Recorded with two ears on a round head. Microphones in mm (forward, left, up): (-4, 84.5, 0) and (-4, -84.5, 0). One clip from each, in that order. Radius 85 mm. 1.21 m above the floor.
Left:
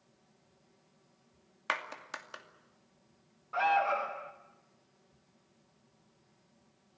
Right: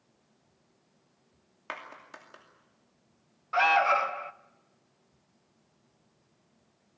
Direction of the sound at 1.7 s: 50° left (ahead or behind).